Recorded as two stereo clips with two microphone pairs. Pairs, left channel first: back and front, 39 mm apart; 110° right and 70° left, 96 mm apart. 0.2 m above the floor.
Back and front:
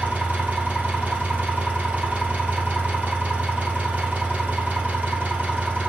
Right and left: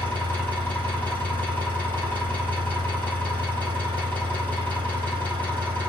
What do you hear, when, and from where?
0.0 s an engine running: 40° right, 2.5 m